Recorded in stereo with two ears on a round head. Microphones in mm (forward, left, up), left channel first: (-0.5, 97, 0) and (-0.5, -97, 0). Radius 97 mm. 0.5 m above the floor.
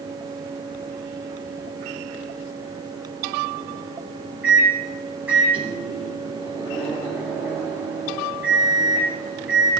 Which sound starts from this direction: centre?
A microwave, at 4.4 s.